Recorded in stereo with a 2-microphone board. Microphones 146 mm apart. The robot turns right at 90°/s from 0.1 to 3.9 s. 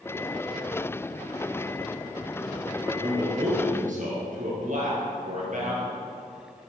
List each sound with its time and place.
2.9 s a man speaking: 175° right, 3 m; by 5.9 s 85° right, 3 m